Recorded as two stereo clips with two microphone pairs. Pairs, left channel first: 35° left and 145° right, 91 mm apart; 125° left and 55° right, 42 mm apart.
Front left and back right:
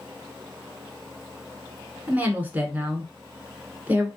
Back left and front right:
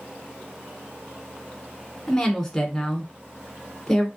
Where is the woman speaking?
170° right, 1.0 m.